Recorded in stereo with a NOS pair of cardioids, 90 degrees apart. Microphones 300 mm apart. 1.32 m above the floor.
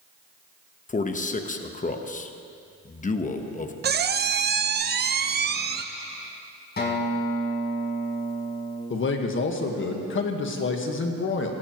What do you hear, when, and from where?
0.9 s a man speaking: 25° left, 1.3 m
3.8 s a squeak: 35° right, 0.7 m
6.8 s a guitar: 35° left, 4 m
8.9 s a man speaking: 40° left, 1.7 m